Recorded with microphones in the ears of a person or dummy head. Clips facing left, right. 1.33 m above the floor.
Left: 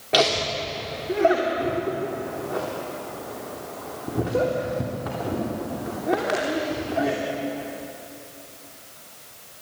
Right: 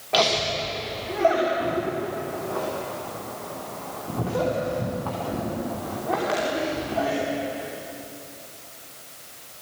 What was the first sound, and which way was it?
Laughter, 35° left (ahead or behind).